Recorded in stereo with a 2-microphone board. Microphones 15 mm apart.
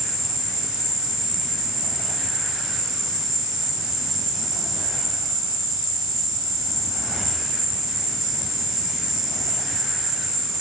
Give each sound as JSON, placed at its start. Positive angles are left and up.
{"t": 0.0, "sound": "an insect", "side_deg": -85, "distance_m": 7.0}